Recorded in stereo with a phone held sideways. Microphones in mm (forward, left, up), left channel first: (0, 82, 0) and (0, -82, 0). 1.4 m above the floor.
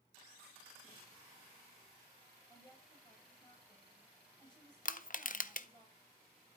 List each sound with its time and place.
2.5 s a woman speaking: 25° left (ahead or behind), 4.5 m
4.8 s crushing: 55° left (ahead or behind), 0.5 m